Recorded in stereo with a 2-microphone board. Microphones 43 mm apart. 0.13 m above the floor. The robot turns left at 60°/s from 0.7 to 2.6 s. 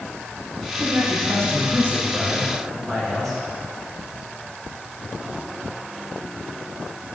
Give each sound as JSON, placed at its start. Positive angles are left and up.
{"t": 0.8, "sound": "a man speaking", "azimuth_deg": -65, "distance_m": 6.5}